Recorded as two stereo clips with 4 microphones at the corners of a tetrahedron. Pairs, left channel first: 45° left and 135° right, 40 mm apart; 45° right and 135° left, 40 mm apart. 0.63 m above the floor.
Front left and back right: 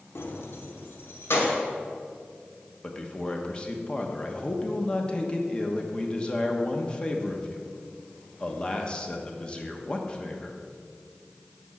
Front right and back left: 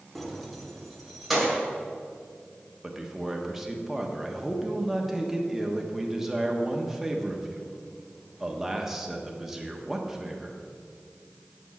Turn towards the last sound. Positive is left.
turn(degrees=65)